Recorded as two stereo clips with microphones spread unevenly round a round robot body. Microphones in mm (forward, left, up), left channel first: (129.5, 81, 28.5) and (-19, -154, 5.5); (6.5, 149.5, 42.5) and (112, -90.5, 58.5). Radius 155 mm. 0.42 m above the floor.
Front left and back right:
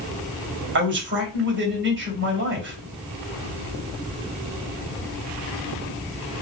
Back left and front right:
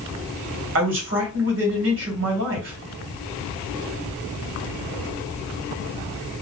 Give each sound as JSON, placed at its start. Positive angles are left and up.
{"t": 0.8, "sound": "a man speaking", "azimuth_deg": -95, "distance_m": 1.8}